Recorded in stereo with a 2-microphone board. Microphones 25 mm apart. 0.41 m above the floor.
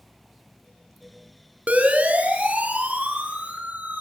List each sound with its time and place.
1.7 s a siren: 70° right (ahead or behind), 7 m